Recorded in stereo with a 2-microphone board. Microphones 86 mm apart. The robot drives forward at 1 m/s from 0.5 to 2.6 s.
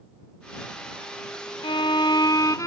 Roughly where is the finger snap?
I don't hear a finger snap.